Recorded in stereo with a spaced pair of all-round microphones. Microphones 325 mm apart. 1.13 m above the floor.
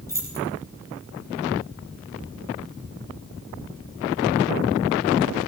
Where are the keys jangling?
10° left (ahead or behind), 5 m.